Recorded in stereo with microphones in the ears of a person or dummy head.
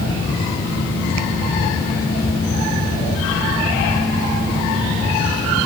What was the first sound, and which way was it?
Only background noise.